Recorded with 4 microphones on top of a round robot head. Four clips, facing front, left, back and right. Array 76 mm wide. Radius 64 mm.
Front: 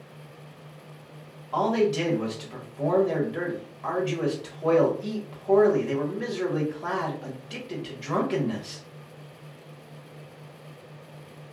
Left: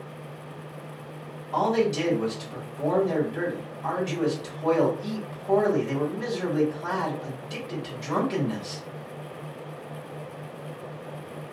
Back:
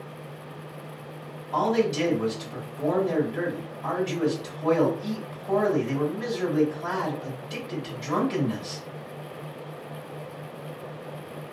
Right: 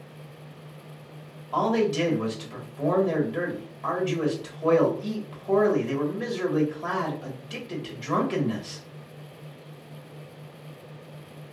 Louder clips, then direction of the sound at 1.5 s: Even, even; 55° right.